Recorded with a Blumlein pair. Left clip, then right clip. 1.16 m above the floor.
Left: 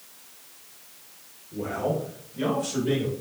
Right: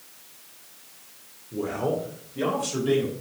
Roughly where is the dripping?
No dripping in this recording.